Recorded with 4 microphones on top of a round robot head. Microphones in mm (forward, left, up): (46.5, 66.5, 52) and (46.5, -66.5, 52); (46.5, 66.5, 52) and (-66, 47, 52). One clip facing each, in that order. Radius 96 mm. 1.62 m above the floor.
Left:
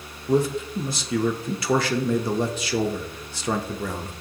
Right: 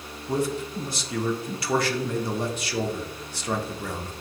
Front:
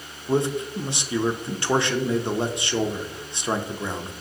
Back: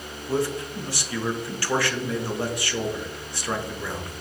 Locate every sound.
0.3 s a man speaking: 80° left, 0.6 m